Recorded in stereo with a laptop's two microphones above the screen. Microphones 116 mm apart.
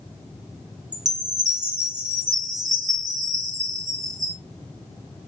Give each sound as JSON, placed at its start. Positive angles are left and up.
{"t": 0.9, "sound": "a chime", "side_deg": -75, "distance_m": 0.9}